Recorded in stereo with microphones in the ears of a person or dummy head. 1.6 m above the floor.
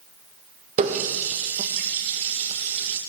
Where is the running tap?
35° right (ahead or behind), 1.2 m.